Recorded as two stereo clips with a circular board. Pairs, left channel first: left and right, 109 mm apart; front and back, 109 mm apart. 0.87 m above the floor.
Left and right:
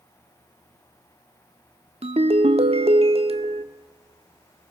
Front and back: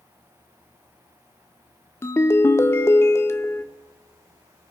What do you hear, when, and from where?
2.0 s a ringtone: 65° right, 0.9 m